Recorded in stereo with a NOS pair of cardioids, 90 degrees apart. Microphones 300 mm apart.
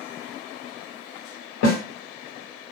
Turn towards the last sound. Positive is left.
turn(degrees=60)